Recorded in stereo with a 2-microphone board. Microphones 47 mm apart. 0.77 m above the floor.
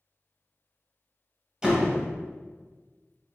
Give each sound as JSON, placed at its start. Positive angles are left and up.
{"t": 1.6, "sound": "a door slam", "side_deg": -10, "distance_m": 0.7}